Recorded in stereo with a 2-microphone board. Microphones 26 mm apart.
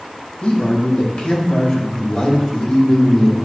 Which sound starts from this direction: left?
A man speaking, at 0.4 s.